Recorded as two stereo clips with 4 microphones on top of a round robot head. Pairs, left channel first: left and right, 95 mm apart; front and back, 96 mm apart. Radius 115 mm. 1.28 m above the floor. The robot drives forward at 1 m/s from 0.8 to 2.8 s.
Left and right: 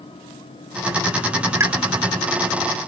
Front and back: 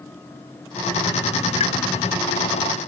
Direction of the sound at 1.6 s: 30° right.